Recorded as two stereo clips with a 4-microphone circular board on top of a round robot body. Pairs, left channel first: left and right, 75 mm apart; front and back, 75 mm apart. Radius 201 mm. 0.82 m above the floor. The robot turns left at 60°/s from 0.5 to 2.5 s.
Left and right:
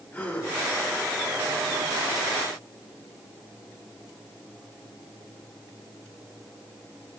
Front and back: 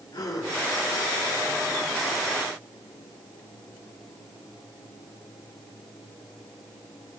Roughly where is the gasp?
Ahead left.